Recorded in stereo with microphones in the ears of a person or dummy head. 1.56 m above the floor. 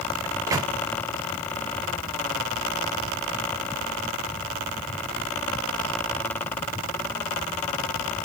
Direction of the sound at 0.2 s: 20° right (ahead or behind).